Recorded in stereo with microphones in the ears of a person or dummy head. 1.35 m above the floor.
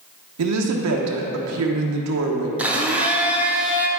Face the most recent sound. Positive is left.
turn(degrees=-5)  # may be behind; listen again after turning